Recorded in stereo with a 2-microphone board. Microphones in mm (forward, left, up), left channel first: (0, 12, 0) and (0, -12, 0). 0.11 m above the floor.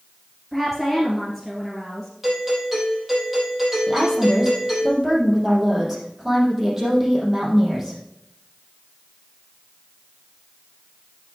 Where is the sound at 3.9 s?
15° right (ahead or behind), 4.5 m.